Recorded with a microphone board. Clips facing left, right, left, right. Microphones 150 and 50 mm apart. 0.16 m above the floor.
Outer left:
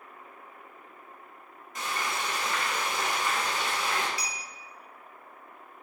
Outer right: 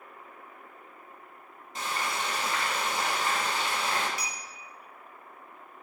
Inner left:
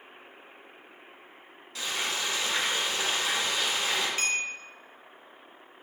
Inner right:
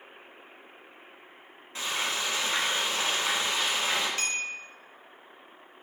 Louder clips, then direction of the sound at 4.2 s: Even, inner left 2 dB; 15° left (ahead or behind).